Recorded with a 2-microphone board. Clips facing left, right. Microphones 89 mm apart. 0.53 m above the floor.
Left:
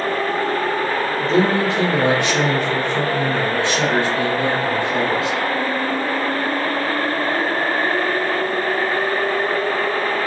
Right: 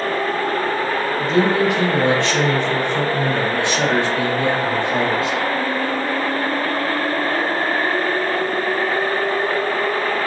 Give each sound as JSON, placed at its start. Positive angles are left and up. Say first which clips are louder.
{"t": 1.2, "sound": "a man speaking", "louder": "even", "side_deg": 35, "distance_m": 1.4}